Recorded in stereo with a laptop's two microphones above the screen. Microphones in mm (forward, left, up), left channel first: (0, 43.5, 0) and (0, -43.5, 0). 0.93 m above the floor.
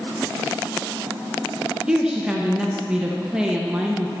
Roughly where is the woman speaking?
Centre.